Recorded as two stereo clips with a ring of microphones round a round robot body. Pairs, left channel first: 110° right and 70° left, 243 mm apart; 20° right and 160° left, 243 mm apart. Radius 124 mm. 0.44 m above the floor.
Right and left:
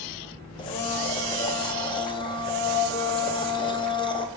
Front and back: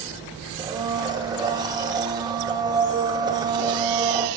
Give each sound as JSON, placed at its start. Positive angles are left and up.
{"t": 0.6, "sound": "a blender", "azimuth_deg": -155, "distance_m": 0.7}